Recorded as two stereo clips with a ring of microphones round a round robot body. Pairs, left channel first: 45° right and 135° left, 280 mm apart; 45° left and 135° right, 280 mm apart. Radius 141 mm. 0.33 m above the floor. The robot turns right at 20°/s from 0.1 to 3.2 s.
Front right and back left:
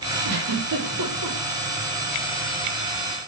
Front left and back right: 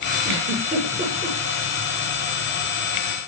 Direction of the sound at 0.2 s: 150° left.